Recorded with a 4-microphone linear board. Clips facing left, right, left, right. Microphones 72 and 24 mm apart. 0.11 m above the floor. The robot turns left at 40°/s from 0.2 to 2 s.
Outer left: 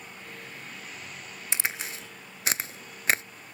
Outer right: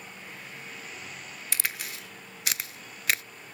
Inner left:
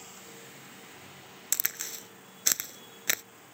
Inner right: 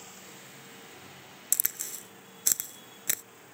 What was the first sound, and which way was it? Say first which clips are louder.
A crack: outer left 3 dB, inner left 1 dB; 25° left (ahead or behind).